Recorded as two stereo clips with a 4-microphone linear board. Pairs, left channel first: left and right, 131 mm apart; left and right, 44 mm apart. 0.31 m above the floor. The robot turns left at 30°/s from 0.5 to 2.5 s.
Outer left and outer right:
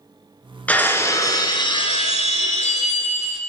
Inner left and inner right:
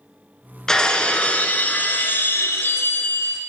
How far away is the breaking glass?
About 0.8 m.